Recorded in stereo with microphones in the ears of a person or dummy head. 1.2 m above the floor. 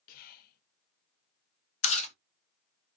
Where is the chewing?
35° left (ahead or behind), 0.9 m.